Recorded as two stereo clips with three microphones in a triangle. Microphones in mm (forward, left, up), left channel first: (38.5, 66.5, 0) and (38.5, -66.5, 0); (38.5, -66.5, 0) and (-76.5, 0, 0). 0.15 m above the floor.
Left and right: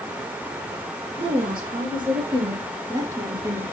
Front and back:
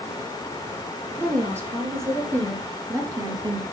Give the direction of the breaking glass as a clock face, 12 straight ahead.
I don't hear breaking glass.